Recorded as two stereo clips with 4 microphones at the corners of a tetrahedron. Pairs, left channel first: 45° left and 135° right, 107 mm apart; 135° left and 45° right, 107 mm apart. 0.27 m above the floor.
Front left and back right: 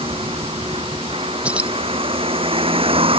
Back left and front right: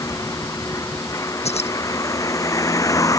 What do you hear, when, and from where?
0.0 s a vehicle: 165° right
1.4 s keys jangling: 145° left